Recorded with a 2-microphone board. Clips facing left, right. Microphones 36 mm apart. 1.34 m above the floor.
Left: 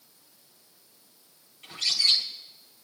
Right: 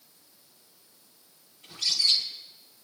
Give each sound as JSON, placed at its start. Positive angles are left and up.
{"t": 1.6, "sound": "a bird", "side_deg": 85, "distance_m": 2.0}